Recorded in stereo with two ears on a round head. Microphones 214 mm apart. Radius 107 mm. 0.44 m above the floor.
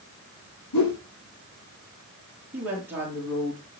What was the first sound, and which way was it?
A whoosh, 85° left.